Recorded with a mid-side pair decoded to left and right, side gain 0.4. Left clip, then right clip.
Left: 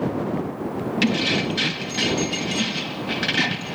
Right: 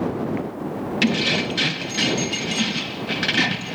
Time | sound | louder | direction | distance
1.0 | keys jangling | right 1 dB | 15° right | ?